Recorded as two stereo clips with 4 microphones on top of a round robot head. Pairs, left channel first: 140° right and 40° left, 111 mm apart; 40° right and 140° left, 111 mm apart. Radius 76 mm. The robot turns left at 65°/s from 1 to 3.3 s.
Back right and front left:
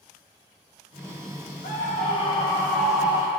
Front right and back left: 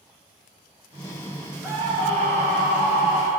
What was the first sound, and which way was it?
A scream, 145° right.